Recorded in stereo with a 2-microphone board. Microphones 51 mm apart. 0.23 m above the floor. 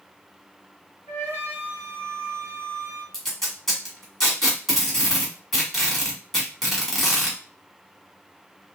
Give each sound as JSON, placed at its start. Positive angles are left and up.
{"t": 1.1, "sound": "a flute", "side_deg": 35, "distance_m": 2.0}
{"t": 3.1, "sound": "tape being pulled", "side_deg": 5, "distance_m": 1.4}